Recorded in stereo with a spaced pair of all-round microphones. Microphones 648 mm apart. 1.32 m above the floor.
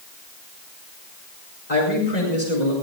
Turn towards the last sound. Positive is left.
turn(degrees=85)